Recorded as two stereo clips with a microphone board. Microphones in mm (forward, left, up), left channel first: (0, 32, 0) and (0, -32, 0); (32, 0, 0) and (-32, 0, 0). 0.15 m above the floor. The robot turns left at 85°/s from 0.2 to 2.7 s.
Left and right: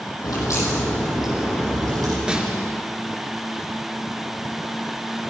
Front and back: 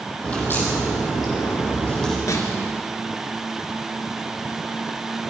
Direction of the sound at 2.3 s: 15° right.